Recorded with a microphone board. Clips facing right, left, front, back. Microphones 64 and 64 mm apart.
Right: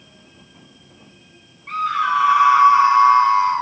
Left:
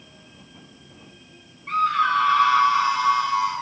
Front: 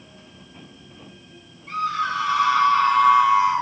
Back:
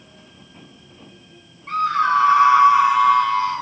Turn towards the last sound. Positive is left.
turn(degrees=-65)